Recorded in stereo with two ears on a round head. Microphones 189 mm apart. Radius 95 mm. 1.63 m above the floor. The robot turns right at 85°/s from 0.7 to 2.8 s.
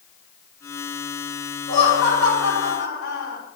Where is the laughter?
35° left, 5.5 m; by 3.4 s 130° left, 5.5 m.